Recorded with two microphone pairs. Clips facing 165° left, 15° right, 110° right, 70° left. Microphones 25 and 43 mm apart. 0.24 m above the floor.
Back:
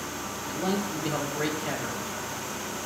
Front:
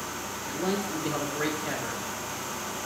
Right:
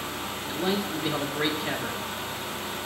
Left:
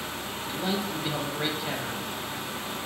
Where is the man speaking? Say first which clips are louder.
Even, right 2 dB; 175° left, 0.9 m.